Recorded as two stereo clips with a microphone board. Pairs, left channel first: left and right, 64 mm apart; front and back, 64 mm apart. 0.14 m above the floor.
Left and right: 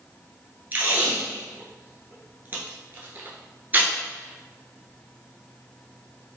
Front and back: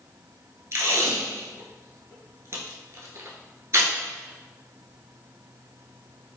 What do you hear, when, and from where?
0.7 s tape being pulled: 145° right, 0.7 m